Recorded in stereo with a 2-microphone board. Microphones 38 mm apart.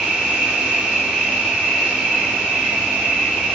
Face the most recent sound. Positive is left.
turn(degrees=-25)  # may be behind; listen again after turning